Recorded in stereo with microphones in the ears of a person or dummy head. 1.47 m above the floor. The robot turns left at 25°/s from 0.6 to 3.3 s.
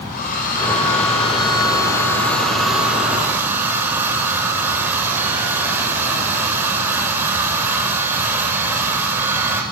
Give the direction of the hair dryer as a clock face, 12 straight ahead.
10 o'clock.